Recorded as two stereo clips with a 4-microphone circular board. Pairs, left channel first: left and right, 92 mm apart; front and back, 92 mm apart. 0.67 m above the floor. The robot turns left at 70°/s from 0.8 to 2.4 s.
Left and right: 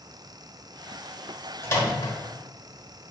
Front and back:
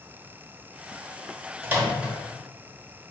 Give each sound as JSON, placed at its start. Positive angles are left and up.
{"t": 1.6, "sound": "a microwave", "azimuth_deg": 135, "distance_m": 1.1}